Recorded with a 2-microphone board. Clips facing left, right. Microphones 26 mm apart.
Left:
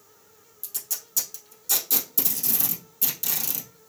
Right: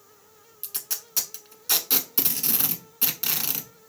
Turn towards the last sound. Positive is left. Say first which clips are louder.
# right 1 dB
turn(degrees=-50)  # may be behind; listen again after turning